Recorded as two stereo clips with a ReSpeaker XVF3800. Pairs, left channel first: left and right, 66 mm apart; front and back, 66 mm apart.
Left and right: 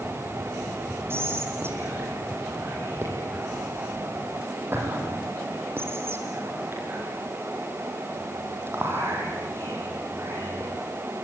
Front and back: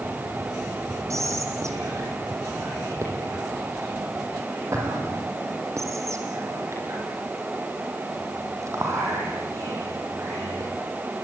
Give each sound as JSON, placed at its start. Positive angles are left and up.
{"t": 1.1, "sound": "whispering", "azimuth_deg": -140, "distance_m": 6.5}